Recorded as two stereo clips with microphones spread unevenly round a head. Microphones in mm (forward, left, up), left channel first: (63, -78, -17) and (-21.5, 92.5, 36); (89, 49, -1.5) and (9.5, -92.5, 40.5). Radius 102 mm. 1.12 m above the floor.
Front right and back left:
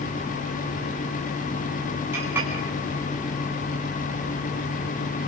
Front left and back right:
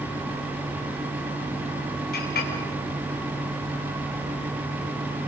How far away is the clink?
About 6.5 m.